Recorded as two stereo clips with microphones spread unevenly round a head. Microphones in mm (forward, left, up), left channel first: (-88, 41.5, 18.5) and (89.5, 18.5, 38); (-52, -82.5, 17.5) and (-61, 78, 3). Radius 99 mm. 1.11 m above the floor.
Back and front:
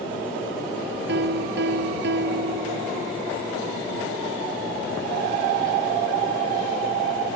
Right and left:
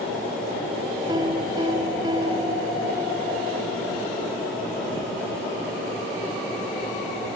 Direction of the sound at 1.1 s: 20° left.